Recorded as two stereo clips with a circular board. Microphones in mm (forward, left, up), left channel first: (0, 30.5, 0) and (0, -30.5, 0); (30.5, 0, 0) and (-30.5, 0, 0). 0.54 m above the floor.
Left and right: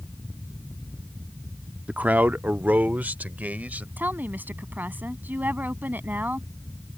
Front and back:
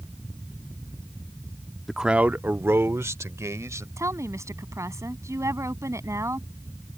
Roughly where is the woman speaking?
Behind right.